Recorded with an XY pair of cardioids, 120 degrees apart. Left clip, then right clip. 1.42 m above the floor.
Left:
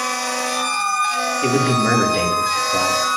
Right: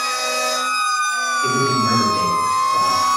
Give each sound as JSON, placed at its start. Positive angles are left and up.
{"t": 1.4, "sound": "a man speaking", "azimuth_deg": 50, "distance_m": 2.5}